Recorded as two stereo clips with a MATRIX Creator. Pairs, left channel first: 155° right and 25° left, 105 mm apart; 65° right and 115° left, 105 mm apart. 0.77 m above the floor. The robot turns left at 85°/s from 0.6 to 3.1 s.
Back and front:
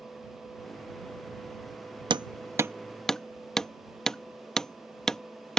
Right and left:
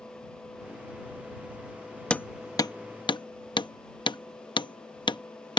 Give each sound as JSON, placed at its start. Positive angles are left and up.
{"t": 2.1, "sound": "hammering", "azimuth_deg": 10}